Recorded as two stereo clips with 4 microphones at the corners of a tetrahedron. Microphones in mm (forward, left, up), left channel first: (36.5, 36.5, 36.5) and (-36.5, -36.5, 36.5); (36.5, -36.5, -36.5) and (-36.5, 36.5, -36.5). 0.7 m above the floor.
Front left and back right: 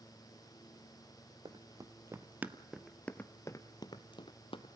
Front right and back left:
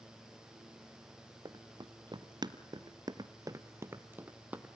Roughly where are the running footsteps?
Behind.